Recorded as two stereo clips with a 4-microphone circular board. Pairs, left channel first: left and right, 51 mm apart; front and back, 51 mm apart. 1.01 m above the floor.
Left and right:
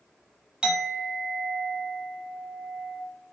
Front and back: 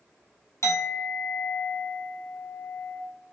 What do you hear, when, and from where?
0.6 s a clink: 15° right, 0.8 m